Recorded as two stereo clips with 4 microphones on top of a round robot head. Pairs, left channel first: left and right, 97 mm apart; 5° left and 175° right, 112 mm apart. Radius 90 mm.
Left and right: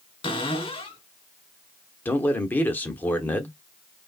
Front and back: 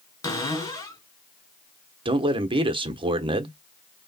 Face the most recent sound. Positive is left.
turn(degrees=160)